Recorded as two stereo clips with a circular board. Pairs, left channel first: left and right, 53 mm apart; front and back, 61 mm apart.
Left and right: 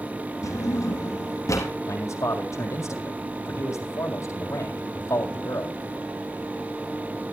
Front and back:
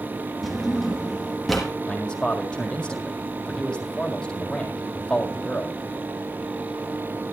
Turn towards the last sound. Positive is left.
turn(degrees=75)